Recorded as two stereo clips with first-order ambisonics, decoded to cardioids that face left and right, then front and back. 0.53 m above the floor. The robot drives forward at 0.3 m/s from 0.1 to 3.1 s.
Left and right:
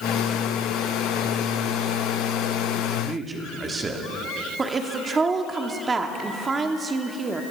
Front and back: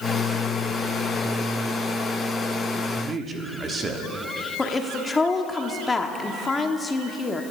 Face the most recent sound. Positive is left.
turn(degrees=-55)